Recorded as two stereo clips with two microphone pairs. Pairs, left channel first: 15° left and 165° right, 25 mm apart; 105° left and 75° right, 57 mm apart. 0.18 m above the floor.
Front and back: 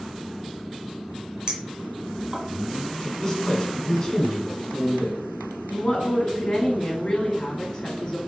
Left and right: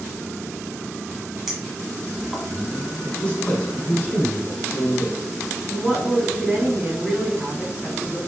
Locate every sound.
1.5 s a clink: 155° right, 1.2 m
3.0 s a man speaking: 45° left, 1.4 m
5.7 s a woman speaking: 20° right, 1.3 m